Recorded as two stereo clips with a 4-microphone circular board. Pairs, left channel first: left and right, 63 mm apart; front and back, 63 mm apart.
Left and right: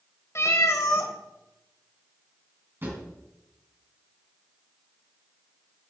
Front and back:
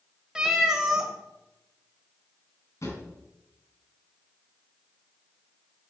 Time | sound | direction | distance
0.3 | a cat meowing | 105° left | 1.2 m
2.8 | a drawer | 40° right | 2.5 m